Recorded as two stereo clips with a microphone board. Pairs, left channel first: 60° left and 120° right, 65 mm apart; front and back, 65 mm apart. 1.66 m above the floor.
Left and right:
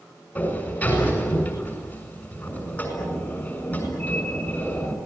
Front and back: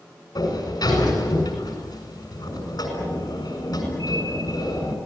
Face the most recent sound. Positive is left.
turn(degrees=0)